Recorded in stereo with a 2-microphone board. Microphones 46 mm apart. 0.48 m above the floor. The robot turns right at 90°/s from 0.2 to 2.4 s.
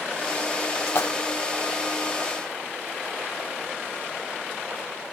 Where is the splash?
70° left (ahead or behind), 1.3 m; by 1.1 s 55° left (ahead or behind), 1.3 m.